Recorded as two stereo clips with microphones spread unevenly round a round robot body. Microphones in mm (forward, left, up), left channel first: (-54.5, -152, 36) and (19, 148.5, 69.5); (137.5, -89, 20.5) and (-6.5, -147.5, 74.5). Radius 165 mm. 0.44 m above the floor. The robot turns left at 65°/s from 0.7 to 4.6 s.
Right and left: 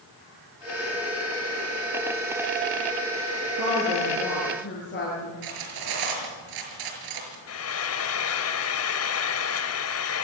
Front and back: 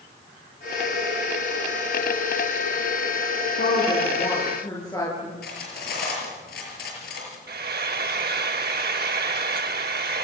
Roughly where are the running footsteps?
I don't hear running footsteps.